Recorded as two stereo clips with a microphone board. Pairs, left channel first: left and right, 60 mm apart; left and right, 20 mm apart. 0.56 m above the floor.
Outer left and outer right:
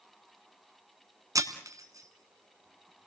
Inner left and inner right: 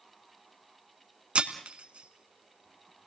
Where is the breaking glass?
70° right (ahead or behind), 1.7 m.